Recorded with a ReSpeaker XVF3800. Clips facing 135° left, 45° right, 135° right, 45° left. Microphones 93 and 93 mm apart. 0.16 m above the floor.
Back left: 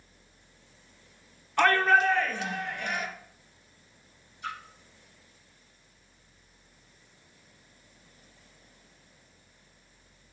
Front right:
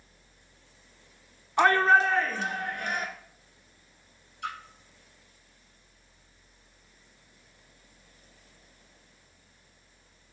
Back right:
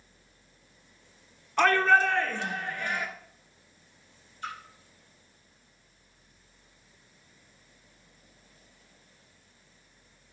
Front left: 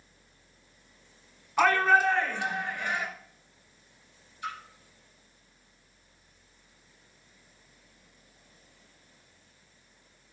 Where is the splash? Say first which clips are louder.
Front right 1 dB, front left 1 dB; 40° right, 3.5 m.